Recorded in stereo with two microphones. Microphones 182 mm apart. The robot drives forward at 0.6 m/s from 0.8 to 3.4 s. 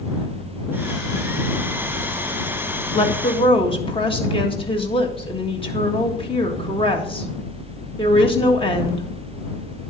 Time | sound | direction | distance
2.9 | a woman speaking | 35° left (ahead or behind) | 1.5 m